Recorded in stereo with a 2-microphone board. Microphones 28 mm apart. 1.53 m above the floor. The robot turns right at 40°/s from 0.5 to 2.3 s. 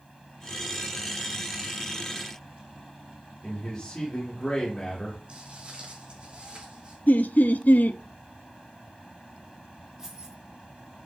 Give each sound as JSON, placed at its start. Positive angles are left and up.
{"t": 3.4, "sound": "a man speaking", "side_deg": 30, "distance_m": 1.8}
{"t": 5.3, "sound": "footsteps", "side_deg": -40, "distance_m": 3.5}
{"t": 7.1, "sound": "laughter", "side_deg": 65, "distance_m": 0.5}
{"t": 10.0, "sound": "keys jangling", "side_deg": -20, "distance_m": 3.5}